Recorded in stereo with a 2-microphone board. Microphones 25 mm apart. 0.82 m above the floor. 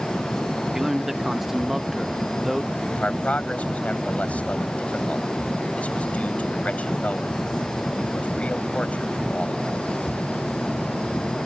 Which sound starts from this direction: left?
A man speaking, at 2.9 s.